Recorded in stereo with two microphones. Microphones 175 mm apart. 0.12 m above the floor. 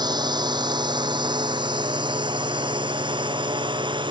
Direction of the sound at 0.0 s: 25° right (ahead or behind).